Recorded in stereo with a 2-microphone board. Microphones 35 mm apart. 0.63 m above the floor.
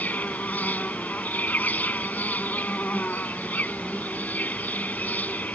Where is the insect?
60° left (ahead or behind).